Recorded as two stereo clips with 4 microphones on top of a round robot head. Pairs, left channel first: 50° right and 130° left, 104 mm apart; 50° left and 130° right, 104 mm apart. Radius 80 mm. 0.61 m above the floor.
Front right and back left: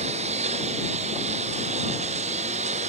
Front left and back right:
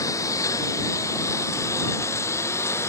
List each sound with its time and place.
0.0 s a lawn mower: 110° left; by 2.9 s 115° left